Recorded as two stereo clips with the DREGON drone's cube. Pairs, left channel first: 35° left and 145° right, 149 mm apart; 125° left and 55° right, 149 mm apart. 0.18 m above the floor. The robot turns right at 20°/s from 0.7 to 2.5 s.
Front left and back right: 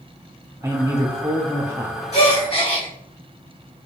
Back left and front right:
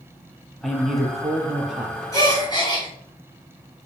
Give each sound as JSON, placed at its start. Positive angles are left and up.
{"t": 0.6, "sound": "a man speaking", "azimuth_deg": -150, "distance_m": 1.0}
{"t": 2.1, "sound": "a gasp", "azimuth_deg": 60, "distance_m": 2.5}